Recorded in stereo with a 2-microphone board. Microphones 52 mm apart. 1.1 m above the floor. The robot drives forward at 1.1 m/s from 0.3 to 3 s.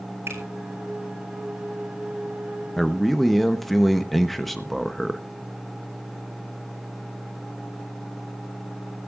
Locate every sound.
0.3 s a finger snap: 55° right (ahead or behind), 4 m
2.8 s a man speaking: 5° left (ahead or behind), 0.7 m